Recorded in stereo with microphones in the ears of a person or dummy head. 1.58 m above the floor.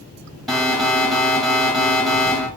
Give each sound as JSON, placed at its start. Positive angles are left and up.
{"t": 0.5, "sound": "an alarm", "side_deg": 0, "distance_m": 2.0}